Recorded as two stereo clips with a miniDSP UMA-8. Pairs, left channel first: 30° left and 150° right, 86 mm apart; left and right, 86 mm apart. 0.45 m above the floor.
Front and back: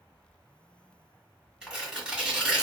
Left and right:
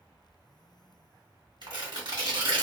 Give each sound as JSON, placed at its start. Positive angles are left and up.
{"t": 1.6, "sound": "tearing paper", "azimuth_deg": -70, "distance_m": 1.4}